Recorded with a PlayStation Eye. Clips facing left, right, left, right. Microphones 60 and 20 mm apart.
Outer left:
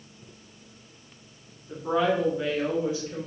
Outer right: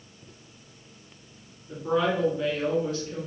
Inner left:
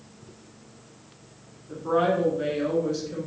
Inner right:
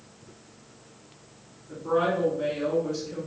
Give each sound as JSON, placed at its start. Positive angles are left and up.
{"t": 1.7, "sound": "a woman speaking", "side_deg": 20, "distance_m": 1.5}